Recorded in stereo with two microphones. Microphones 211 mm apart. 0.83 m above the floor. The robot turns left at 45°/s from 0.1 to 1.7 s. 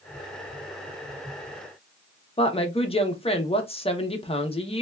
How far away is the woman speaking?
About 0.6 m.